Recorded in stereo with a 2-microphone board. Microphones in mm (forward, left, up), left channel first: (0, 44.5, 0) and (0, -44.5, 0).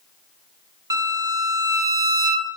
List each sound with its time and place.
0.9 s a violin: 45° right (ahead or behind), 0.9 m